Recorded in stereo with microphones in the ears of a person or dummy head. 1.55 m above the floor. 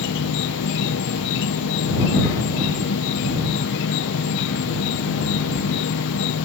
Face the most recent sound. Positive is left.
turn(degrees=65)  # may be behind; listen again after turning